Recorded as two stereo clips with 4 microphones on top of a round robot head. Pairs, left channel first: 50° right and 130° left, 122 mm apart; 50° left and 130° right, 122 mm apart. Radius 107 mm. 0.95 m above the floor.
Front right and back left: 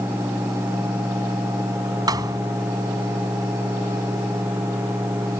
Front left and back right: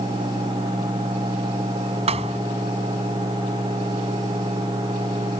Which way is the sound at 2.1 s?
170° right.